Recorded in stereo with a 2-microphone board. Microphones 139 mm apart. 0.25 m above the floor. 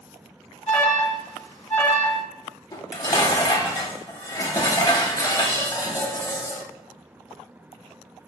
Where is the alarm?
15° left (ahead or behind), 1.6 m.